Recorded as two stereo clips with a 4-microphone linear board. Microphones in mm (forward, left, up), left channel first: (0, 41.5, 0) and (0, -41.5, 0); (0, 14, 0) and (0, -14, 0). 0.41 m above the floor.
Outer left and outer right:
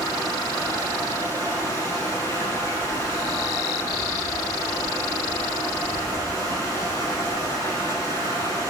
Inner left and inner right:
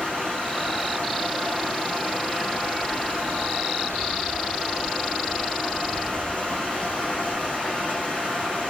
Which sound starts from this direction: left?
Running water, at 0.0 s.